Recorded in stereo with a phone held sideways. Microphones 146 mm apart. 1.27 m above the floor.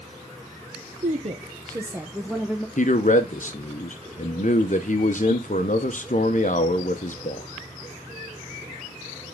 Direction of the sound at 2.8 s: 60° left (ahead or behind).